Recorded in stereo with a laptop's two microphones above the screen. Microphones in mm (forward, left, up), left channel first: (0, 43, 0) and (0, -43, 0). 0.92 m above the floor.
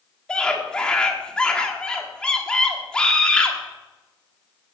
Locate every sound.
0.3 s a scream: 10° left (ahead or behind), 1.6 m